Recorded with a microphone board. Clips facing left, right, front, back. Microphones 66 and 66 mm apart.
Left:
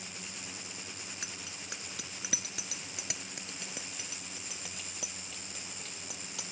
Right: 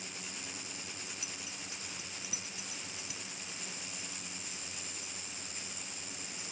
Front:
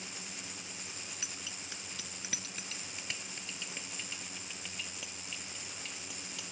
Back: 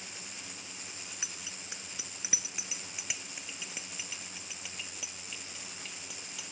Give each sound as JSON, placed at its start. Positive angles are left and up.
{"t": 1.2, "sound": "a bicycle bell", "azimuth_deg": 110}